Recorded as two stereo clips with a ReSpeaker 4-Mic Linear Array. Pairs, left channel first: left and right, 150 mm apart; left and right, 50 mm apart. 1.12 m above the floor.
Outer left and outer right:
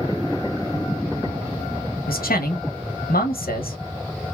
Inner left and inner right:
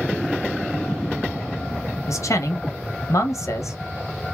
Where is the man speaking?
80° left, 0.7 m.